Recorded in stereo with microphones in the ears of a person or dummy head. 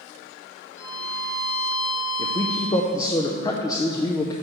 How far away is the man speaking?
About 0.5 m.